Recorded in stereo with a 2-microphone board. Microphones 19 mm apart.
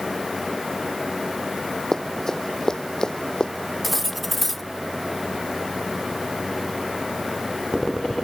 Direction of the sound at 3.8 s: 10° left (ahead or behind).